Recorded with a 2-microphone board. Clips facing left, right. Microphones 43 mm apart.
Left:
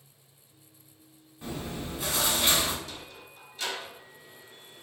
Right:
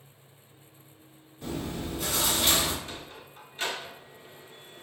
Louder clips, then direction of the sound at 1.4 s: Right 2 dB; 15° left (ahead or behind).